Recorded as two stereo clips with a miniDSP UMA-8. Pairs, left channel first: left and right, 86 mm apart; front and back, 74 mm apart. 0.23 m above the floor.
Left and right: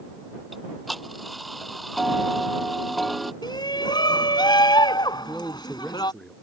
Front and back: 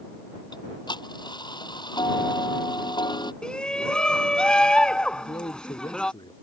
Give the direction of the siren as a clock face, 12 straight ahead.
No siren in this recording.